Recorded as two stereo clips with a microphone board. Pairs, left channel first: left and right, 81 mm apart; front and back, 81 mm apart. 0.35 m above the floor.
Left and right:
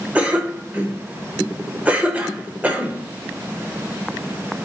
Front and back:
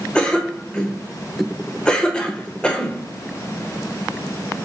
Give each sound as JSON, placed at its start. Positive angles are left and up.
{"t": 0.1, "sound": "a cough", "azimuth_deg": -55, "distance_m": 0.9}